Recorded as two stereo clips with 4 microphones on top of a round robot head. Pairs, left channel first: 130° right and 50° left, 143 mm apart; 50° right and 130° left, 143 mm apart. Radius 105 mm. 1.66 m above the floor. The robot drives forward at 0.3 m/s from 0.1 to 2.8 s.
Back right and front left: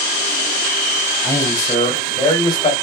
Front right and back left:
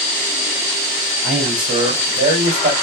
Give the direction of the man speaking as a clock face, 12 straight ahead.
7 o'clock.